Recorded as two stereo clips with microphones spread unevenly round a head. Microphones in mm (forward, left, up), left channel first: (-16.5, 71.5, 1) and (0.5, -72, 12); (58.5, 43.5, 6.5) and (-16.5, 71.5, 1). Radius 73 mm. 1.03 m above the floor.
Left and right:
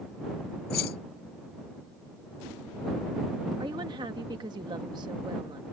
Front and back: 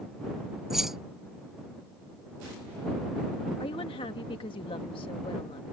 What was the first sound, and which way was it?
Keys jangling, 75° left.